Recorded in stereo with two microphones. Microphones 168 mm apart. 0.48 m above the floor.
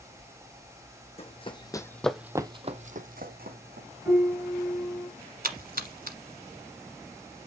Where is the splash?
65° right (ahead or behind), 1.1 m.